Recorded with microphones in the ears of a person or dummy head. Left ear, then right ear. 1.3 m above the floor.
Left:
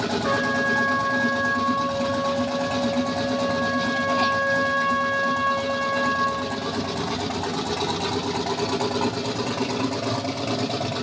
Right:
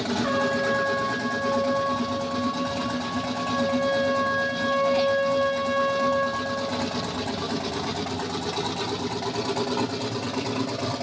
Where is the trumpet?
40° right (ahead or behind), 1.4 m.